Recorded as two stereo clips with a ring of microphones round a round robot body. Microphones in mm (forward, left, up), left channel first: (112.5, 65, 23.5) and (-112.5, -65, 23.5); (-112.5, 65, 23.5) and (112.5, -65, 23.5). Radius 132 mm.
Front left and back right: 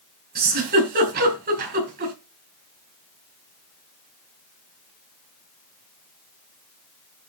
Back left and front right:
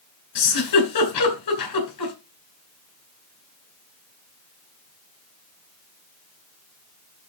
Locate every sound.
0.3 s a giggle: 155° left, 4 m